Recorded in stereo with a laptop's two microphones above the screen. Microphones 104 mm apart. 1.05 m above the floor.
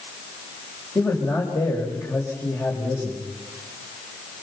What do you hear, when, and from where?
0.9 s a man speaking: 35° left (ahead or behind), 6 m